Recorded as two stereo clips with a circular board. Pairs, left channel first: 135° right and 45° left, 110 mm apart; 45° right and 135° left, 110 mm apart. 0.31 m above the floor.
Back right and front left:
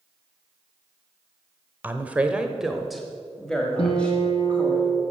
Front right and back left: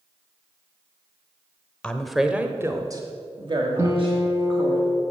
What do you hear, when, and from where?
1.8 s a woman speaking: 10° left, 0.9 m; by 4.8 s 150° left, 2 m
3.8 s a guitar: 160° right, 2 m